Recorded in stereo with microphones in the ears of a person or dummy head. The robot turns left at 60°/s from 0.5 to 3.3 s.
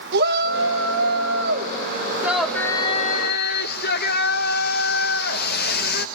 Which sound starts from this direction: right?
A shout, at 0.1 s.